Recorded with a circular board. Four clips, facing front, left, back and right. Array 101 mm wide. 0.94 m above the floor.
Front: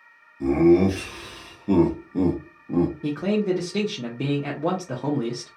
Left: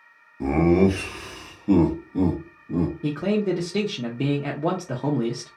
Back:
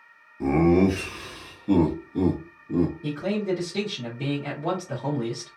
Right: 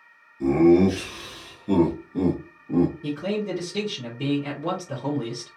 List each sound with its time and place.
0.4 s laughter: 120° left, 1.0 m; by 2.9 s 20° right, 1.0 m
3.0 s a man speaking: 50° left, 0.7 m